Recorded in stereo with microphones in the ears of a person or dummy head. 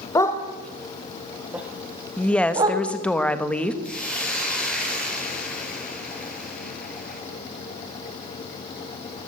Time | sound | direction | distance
0.1 | a dog barking | 20° left (ahead or behind) | 2.5 m
2.2 | a woman speaking | 10° left (ahead or behind) | 1.9 m
3.8 | a hiss | 5° left (ahead or behind) | 6 m